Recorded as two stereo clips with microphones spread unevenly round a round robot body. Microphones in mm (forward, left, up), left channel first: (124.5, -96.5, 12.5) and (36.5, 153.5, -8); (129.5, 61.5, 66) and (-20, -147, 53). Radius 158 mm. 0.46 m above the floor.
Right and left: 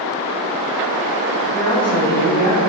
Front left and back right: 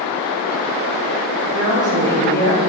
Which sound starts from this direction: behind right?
A woman speaking, at 1.5 s.